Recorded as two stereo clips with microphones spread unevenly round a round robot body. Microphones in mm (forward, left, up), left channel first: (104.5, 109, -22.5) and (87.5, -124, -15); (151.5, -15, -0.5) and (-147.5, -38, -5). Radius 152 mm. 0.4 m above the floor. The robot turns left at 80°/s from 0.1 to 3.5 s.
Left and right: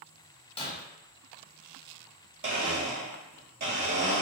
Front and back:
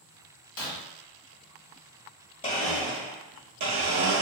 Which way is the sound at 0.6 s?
20° left.